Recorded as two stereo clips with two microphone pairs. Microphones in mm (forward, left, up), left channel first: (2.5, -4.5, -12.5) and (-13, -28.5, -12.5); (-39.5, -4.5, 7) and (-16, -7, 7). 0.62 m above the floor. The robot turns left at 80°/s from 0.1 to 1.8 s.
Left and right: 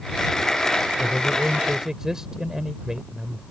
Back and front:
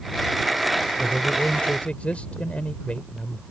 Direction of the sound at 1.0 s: 125° right.